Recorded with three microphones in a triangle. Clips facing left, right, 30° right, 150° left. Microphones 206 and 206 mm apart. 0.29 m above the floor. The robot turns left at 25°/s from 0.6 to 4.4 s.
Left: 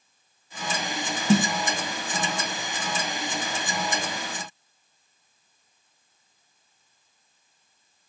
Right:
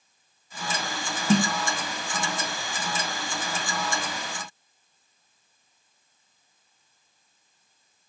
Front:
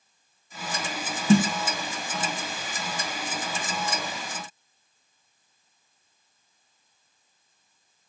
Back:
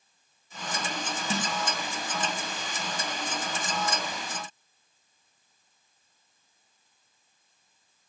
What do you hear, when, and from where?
1.3 s a snare drum: 5° left, 0.9 m; by 1.5 s straight ahead, 0.9 m